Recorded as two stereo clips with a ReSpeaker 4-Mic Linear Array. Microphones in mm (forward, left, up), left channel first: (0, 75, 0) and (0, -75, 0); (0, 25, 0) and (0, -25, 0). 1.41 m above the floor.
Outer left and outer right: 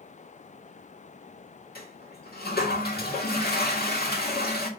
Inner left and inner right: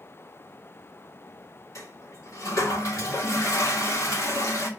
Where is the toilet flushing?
80° left, 2 m.